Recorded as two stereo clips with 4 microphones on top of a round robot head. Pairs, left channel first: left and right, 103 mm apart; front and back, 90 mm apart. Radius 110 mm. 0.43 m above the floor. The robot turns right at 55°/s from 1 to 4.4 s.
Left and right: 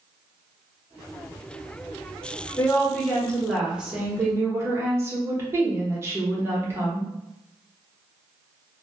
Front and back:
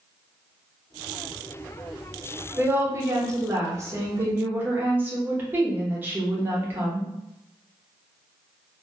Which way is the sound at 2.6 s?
130° left.